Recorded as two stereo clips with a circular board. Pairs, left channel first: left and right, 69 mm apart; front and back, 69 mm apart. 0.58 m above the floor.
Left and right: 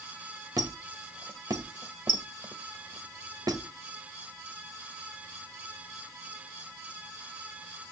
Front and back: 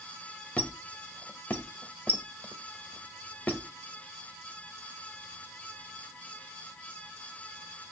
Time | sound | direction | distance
0.6 | a squeak | 65° right | 1.5 m